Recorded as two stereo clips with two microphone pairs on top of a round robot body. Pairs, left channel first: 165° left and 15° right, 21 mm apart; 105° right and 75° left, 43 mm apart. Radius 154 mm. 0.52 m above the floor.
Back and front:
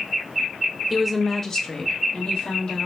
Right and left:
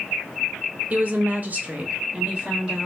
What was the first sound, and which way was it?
A woman speaking, 45° left.